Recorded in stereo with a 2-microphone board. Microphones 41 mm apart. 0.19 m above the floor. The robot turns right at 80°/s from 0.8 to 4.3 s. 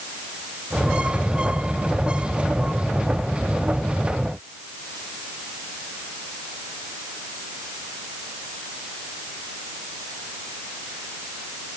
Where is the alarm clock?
No alarm clock in this recording.